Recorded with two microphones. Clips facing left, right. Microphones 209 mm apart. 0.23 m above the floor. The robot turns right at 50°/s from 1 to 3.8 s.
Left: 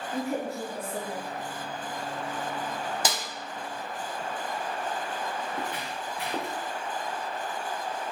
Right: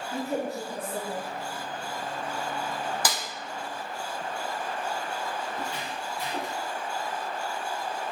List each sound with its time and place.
0.1 s a woman speaking: 30° right (ahead or behind), 1.3 m; by 1.3 s 40° right (ahead or behind), 1.3 m
3.0 s a snare drum: 25° left (ahead or behind), 0.6 m; by 3.2 s 20° left (ahead or behind), 0.6 m
5.5 s footsteps: 55° left (ahead or behind), 1.6 m; by 6.6 s 60° left (ahead or behind), 1.2 m